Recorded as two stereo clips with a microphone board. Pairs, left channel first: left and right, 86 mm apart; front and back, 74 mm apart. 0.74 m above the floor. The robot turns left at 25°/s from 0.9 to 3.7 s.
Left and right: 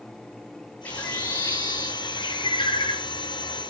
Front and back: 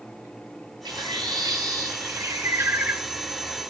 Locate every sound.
0.8 s a bird: 160° left, 6.5 m; by 3.0 s 110° left, 6.5 m